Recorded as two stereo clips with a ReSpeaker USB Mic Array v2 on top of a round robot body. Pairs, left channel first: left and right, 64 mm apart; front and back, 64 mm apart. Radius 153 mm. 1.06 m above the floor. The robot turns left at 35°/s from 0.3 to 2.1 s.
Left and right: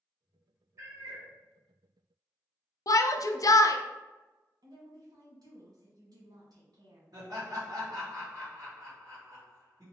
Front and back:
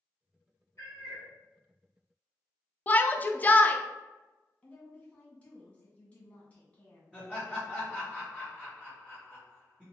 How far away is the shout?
About 0.6 m.